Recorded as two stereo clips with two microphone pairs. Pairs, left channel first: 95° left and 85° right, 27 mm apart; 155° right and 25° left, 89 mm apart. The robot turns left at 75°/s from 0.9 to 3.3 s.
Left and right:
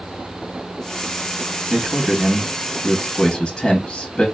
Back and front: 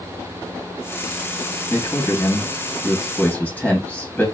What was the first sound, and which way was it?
A man speaking, 100° right.